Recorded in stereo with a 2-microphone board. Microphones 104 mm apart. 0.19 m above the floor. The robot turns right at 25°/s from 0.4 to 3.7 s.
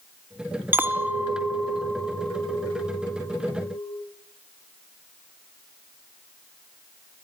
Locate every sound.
0.7 s a clink: 30° right, 1.1 m; by 4.0 s 40° left, 1.1 m